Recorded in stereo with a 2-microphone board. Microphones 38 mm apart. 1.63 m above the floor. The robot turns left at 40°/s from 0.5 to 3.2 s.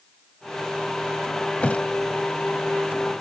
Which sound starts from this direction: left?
A thud, at 1.6 s.